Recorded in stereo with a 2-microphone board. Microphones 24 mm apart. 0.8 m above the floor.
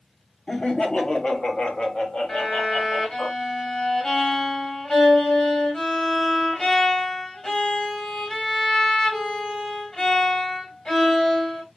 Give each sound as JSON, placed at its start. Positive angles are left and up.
{"t": 0.5, "sound": "laughter", "side_deg": 45, "distance_m": 1.2}
{"t": 2.3, "sound": "a violin", "side_deg": 35, "distance_m": 2.0}